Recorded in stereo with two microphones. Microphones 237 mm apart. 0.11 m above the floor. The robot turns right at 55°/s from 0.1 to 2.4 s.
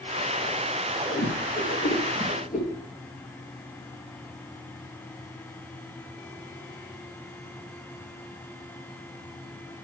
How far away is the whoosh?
About 2.5 m.